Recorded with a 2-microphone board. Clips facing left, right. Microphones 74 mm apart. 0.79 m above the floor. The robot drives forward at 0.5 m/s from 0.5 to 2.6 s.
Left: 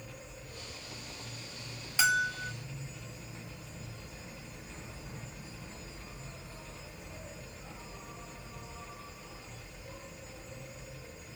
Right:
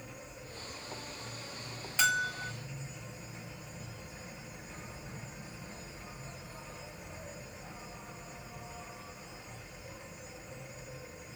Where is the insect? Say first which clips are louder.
Right 1 dB; 75° right (ahead or behind), 3 m.